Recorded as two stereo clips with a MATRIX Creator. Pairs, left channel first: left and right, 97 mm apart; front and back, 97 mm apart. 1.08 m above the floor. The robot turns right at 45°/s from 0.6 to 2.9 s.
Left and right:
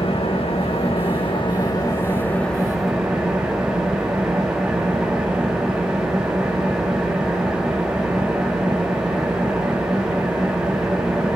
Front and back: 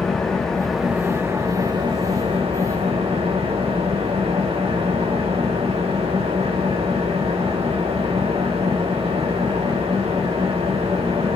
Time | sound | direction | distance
0.0 | an engine running | 85° left | 1.8 m